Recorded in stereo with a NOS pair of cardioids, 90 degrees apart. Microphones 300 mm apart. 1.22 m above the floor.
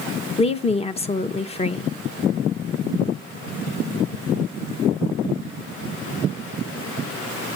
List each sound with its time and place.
0.4 s a woman speaking: 20° left, 1.0 m